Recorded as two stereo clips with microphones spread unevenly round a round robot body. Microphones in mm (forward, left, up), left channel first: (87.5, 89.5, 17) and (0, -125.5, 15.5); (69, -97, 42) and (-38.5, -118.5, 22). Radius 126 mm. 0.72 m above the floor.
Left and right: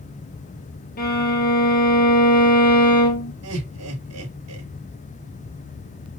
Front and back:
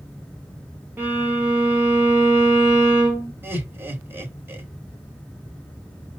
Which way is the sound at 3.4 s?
100° right.